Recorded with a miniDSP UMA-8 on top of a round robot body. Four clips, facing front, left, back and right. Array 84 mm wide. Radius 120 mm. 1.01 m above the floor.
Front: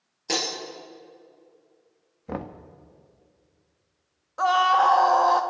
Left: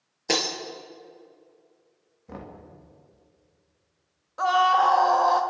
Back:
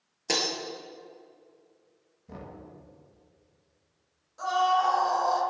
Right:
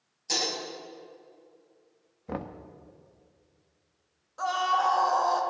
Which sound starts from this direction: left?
Breaking glass, at 0.3 s.